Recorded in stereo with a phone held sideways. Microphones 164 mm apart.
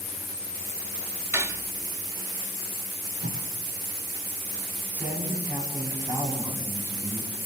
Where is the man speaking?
10° right (ahead or behind), 9.5 m.